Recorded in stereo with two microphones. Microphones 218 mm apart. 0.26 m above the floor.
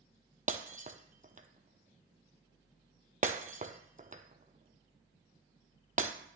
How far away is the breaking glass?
About 0.6 m.